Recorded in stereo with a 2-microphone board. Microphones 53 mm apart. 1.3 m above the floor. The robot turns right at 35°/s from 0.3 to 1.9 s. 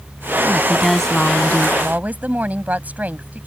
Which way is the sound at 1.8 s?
35° right (ahead or behind).